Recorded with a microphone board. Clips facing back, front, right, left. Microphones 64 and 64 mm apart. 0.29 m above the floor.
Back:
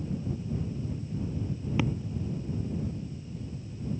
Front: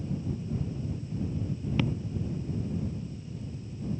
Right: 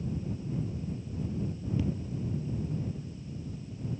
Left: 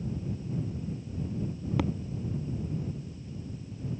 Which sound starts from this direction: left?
Tapping, at 1.8 s.